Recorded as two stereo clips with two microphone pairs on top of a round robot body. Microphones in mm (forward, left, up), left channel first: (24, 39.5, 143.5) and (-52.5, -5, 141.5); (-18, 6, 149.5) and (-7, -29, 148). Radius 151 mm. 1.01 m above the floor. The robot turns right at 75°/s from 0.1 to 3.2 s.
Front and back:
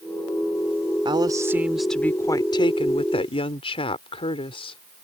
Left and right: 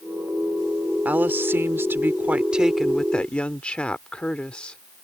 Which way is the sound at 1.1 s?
120° right.